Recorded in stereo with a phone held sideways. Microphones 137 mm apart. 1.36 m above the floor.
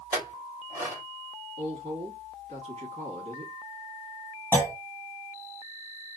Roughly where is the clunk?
Centre.